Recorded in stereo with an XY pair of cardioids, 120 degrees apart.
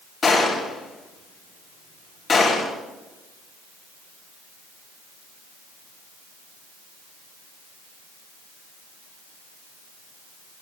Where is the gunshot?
35° left, 5 m.